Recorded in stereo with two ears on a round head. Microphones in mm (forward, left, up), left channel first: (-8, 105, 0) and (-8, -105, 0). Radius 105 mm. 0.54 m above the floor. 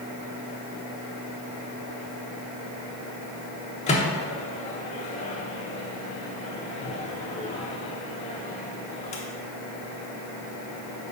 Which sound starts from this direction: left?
A microwave, at 3.9 s.